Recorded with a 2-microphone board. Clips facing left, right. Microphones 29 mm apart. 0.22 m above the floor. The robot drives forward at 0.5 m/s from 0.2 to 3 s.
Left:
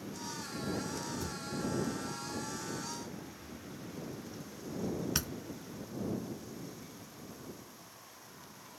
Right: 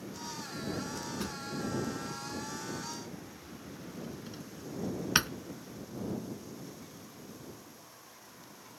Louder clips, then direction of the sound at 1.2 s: Right 1 dB; 60° right (ahead or behind).